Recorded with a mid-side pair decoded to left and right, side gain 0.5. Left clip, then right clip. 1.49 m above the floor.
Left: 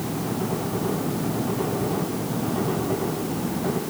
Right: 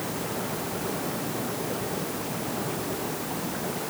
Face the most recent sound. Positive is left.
No sound to turn to.